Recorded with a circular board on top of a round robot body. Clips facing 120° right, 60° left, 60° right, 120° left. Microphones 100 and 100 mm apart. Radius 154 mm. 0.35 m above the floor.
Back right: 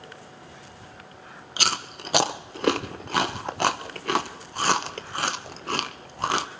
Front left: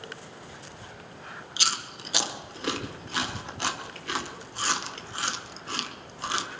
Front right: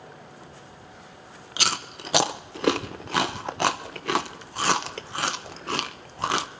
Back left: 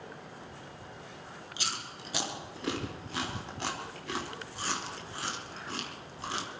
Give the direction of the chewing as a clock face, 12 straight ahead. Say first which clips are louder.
Back right 5 dB, front right 11 dB; 3 o'clock.